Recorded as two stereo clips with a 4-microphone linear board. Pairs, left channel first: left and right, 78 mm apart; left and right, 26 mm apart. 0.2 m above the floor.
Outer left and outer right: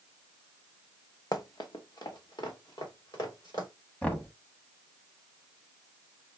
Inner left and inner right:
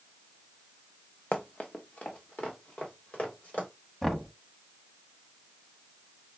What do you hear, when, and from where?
1.3 s running footsteps: 55° left (ahead or behind), 0.9 m; by 3.7 s 60° left (ahead or behind), 4 m
4.0 s knocking: 15° left (ahead or behind), 0.8 m